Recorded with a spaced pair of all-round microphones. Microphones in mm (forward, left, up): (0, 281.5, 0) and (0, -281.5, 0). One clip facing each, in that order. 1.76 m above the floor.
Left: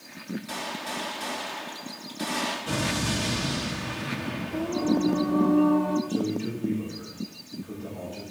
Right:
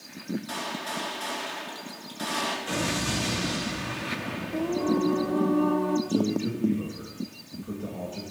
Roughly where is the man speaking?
Right.